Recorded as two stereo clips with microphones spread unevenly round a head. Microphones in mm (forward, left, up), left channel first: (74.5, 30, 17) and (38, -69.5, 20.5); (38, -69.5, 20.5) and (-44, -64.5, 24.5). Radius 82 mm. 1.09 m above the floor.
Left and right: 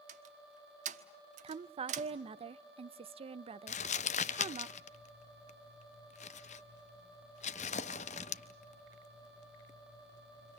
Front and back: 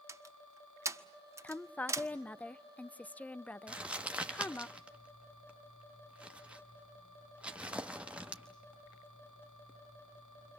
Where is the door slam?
130° right, 1.4 m.